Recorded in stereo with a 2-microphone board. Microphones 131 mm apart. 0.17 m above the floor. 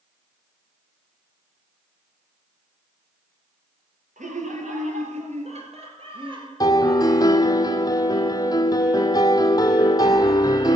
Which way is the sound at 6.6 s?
30° left (ahead or behind).